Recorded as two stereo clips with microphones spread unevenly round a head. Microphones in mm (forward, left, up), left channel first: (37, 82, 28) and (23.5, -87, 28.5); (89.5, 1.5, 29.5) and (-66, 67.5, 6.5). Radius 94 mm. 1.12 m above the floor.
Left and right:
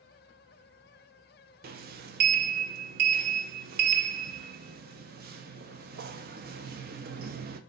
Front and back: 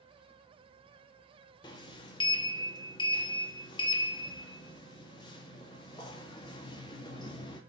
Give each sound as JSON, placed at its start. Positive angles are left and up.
{"t": 1.6, "sound": "a sliding door", "azimuth_deg": -80, "distance_m": 0.5}